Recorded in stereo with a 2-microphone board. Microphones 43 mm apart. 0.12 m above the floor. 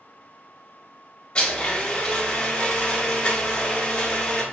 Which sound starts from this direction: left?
A blender, at 1.4 s.